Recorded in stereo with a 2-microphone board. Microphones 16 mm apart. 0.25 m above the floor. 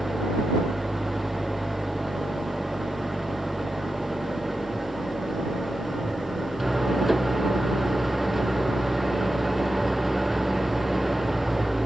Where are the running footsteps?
I don't hear running footsteps.